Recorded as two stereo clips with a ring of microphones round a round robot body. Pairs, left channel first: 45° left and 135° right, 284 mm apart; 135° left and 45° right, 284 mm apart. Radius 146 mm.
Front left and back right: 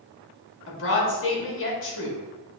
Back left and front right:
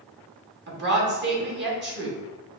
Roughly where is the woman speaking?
Ahead.